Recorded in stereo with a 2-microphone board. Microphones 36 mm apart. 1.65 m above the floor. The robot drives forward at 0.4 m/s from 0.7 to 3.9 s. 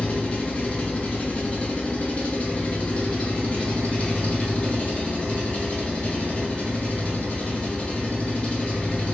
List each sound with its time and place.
0.0 s an engine running: 40° left (ahead or behind), 1.3 m; by 9.1 s 30° left (ahead or behind), 1.6 m